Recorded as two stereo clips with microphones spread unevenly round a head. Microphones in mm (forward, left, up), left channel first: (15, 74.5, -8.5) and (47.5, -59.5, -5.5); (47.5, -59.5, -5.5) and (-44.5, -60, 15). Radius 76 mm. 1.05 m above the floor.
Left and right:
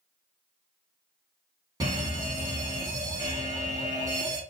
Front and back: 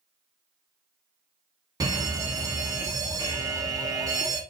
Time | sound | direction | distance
1.8 | a fire alarm | 135° right | 1.7 m